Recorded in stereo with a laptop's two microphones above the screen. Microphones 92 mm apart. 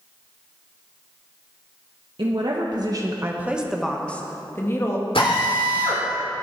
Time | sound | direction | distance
2.2 | a woman speaking | 65° right (ahead or behind) | 1.4 m
5.2 | a drill | 85° left | 3 m